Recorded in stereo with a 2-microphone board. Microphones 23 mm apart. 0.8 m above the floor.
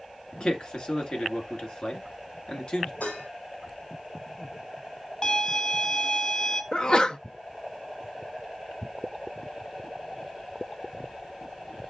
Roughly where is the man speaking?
Left.